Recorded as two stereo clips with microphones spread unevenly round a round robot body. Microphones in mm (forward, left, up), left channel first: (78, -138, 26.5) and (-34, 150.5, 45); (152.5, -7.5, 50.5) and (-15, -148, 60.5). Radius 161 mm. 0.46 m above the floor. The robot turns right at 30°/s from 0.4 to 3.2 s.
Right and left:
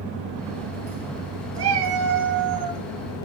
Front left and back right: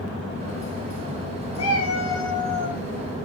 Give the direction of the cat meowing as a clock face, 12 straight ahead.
10 o'clock.